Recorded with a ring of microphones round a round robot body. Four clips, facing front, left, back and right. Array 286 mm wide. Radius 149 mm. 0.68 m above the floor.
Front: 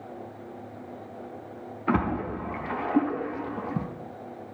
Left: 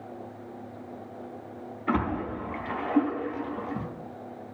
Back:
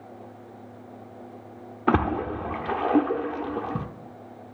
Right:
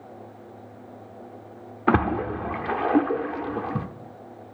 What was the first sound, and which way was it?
A splash, 130° right.